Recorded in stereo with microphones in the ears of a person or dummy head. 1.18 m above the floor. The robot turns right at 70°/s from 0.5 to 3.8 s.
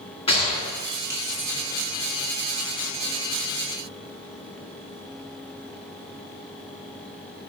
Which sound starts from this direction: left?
A gunshot, at 0.3 s.